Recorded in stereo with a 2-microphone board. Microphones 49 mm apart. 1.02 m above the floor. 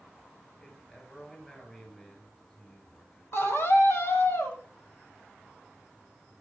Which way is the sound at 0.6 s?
15° left (ahead or behind).